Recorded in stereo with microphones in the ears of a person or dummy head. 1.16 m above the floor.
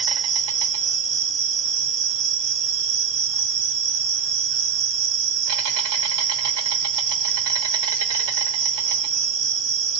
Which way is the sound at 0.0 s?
75° right (ahead or behind).